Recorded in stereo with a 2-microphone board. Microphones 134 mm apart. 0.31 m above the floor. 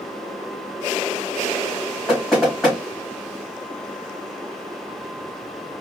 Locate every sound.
2.1 s knocking: centre (ahead or behind), 3.5 m